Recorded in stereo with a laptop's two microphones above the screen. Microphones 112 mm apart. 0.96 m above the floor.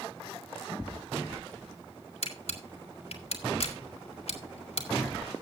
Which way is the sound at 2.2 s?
60° left (ahead or behind).